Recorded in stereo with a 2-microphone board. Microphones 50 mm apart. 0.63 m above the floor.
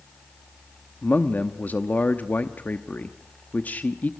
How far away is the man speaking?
About 0.8 m.